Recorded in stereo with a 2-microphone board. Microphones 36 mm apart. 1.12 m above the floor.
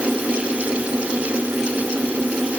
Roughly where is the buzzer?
I don't hear a buzzer.